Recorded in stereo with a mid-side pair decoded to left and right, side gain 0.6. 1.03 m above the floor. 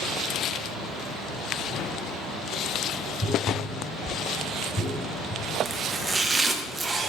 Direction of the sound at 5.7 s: 25° right.